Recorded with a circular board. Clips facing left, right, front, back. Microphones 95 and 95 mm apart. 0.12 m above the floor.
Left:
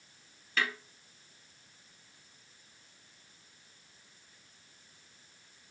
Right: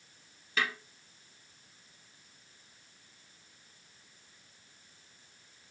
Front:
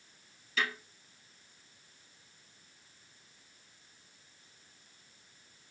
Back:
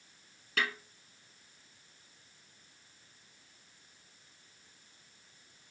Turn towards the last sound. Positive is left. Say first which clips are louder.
# even, even
turn(degrees=-165)